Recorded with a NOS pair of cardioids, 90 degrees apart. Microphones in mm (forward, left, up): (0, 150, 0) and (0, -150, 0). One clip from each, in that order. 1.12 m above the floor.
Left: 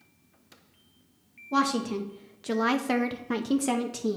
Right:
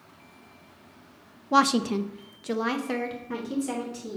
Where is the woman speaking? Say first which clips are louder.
Right 5 dB; 40° right, 0.8 m; by 4.2 s 50° left, 1.2 m.